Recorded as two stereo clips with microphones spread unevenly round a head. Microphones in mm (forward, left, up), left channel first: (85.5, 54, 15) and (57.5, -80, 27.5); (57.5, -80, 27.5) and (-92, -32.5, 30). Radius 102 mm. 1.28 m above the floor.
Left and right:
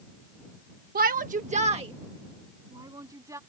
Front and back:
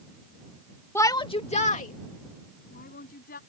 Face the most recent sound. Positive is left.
turn(degrees=-35)